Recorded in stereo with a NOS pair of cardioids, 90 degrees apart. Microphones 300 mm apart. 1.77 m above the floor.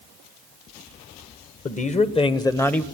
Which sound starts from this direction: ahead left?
A man speaking, at 1.6 s.